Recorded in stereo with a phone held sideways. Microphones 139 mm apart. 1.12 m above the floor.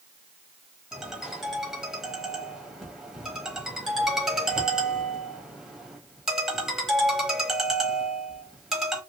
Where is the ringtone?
Centre (ahead or behind), 1.1 m.